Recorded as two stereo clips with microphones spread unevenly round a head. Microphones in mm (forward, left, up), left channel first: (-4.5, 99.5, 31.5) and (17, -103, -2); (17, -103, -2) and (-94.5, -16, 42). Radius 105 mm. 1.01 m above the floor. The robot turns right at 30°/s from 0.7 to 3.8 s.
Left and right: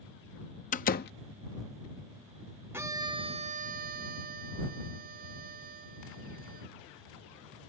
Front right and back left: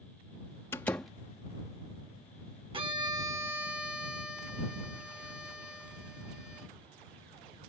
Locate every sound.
0.7 s a door slam: 40° left; by 1.1 s 50° left
2.7 s a violin: 165° right; by 6.7 s 130° right